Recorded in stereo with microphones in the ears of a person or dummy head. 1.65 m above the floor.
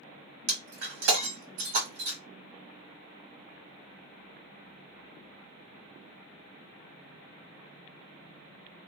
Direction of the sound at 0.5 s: 65° right (ahead or behind).